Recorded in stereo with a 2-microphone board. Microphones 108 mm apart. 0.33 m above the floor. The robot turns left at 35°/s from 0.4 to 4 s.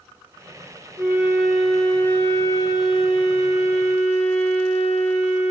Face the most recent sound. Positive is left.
turn(degrees=95)